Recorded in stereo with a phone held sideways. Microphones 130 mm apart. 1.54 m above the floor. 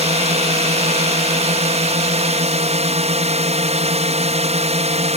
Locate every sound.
0.0 s a drone: 55° right (ahead or behind)